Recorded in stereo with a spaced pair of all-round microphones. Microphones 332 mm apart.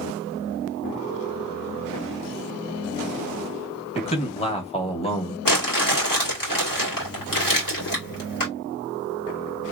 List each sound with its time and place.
4.0 s a man speaking: 20° left (ahead or behind), 1.6 m
5.5 s crumpling: 80° left, 2.0 m